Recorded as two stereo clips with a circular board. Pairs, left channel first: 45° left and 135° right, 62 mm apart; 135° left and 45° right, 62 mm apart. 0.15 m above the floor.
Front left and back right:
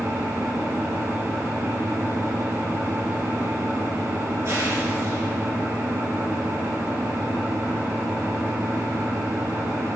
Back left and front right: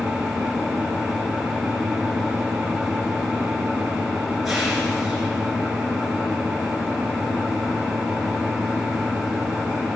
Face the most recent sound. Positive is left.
turn(degrees=-125)